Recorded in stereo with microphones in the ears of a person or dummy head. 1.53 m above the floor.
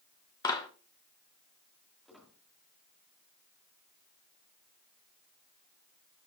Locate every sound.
0.4 s a clap: 15° left (ahead or behind), 1.2 m
2.0 s a squeak: 5° right (ahead or behind), 1.8 m